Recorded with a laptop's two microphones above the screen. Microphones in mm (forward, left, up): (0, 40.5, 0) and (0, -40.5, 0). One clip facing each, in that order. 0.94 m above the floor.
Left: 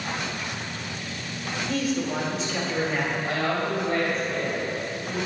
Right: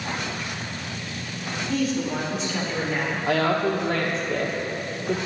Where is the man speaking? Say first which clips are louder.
Right 2 dB; centre (ahead or behind), 4 m.